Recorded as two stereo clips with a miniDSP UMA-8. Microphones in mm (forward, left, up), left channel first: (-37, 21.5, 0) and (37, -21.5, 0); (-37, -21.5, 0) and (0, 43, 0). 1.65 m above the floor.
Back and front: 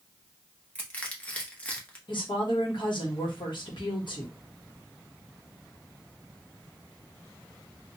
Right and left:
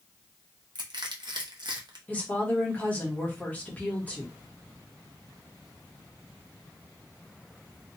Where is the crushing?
75° left, 0.8 m.